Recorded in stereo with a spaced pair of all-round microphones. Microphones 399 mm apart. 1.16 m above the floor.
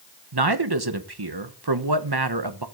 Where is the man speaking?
70° right (ahead or behind), 1.1 m.